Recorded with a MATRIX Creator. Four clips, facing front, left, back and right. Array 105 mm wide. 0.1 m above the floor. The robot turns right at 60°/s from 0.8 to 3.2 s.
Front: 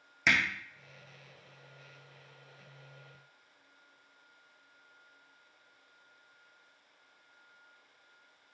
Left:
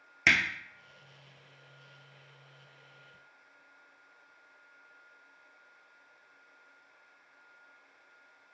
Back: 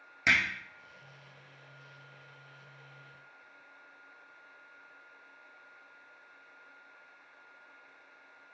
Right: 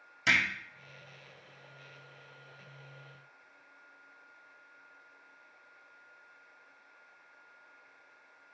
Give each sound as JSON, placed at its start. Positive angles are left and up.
{"t": 0.3, "sound": "hammering", "azimuth_deg": 75, "distance_m": 0.9}